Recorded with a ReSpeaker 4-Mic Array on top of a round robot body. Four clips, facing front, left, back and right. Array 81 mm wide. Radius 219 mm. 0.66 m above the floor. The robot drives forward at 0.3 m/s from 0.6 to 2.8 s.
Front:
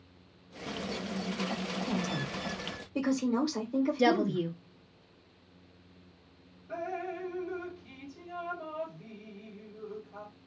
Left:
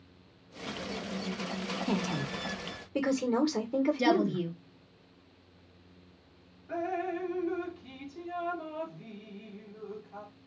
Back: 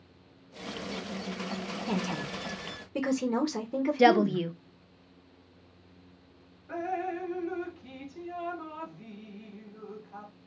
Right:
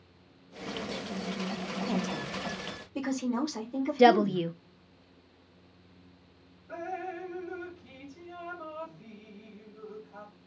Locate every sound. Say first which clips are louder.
1.9 s a woman speaking: left 1 dB, back 4 dB; 135° left, 1.3 m; by 4.4 s 145° left, 1.5 m
4.0 s a woman speaking: right 5 dB, back 7 dB; 135° right, 0.9 m
6.7 s dripping: left 4 dB, back 4 dB; 160° left, 1.6 m